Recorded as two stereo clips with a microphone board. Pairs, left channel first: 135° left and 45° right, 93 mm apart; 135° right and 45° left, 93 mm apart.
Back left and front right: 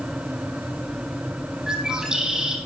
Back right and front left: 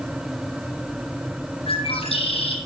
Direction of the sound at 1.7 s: 125° right.